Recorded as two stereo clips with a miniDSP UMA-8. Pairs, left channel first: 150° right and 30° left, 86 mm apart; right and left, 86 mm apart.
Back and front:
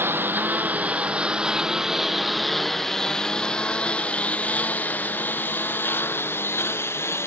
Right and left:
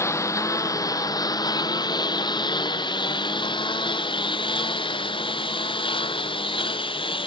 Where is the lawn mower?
35° right; by 7.3 s 90° right.